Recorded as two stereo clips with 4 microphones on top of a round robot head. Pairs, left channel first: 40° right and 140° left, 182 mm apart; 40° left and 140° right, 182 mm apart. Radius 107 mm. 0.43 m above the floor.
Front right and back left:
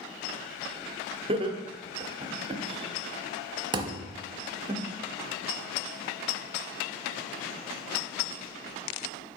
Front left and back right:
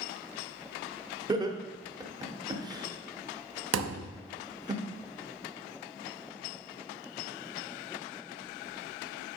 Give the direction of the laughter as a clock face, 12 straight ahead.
6 o'clock.